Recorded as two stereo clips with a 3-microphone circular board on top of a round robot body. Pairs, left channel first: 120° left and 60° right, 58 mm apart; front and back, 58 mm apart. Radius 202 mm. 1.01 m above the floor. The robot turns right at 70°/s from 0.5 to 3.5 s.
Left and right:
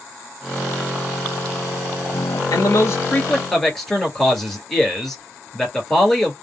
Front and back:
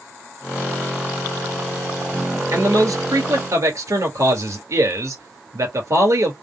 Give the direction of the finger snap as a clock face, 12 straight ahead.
No finger snap in this recording.